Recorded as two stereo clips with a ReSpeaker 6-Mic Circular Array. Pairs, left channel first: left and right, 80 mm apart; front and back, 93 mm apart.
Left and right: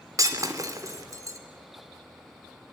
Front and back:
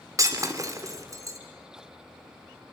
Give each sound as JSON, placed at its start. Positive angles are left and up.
{"t": 0.2, "sound": "breaking glass", "azimuth_deg": -130, "distance_m": 2.5}